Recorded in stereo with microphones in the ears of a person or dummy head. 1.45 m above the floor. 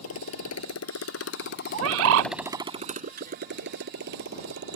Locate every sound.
0.0 s a motorcycle: 85° left; by 4.8 s 60° right (ahead or behind)
1.7 s a bird: 65° right (ahead or behind)